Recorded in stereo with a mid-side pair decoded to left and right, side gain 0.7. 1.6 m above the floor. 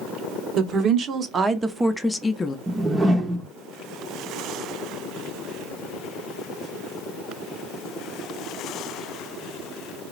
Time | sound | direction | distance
0.6 | a woman speaking | 45° right | 1.0 m
2.7 | a whoosh | 15° right | 0.7 m